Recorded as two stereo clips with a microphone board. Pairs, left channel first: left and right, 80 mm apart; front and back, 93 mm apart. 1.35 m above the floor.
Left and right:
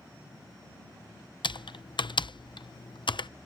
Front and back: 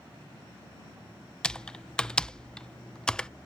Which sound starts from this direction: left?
Typing on a keyboard, at 1.4 s.